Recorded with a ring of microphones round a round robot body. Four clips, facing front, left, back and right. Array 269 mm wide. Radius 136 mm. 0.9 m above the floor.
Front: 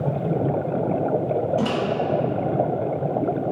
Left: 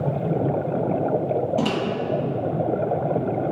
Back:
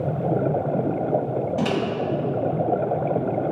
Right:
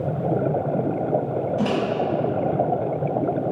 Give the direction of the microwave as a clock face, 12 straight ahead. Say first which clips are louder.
Even, even; 8 o'clock.